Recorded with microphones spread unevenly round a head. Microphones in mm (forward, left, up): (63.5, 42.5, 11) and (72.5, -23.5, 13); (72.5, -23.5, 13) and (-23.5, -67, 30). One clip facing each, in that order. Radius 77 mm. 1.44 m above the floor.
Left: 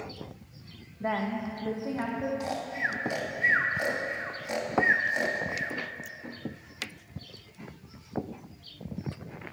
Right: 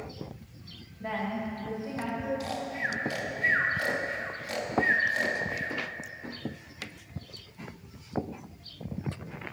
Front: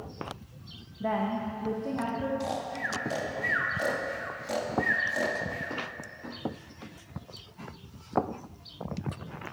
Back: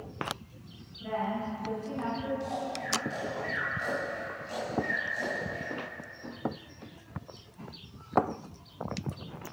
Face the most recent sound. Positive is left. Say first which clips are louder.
# left 1 dB, front 1 dB
turn(degrees=30)